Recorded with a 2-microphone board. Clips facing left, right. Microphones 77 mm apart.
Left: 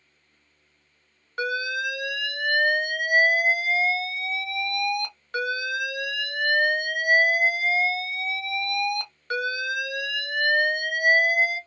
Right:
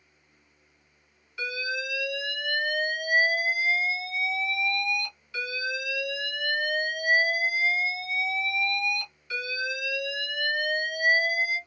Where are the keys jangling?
I don't hear keys jangling.